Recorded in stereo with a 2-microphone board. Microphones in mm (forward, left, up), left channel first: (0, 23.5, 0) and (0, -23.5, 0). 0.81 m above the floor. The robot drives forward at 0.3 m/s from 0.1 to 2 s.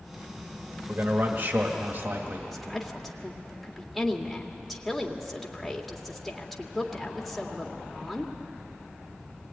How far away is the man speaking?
About 1.5 m.